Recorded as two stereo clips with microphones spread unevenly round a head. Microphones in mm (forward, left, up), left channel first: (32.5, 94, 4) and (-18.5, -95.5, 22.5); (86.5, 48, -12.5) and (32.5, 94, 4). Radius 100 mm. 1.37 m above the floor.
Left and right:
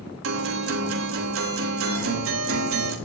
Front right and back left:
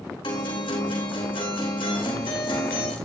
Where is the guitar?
90° right, 3 m.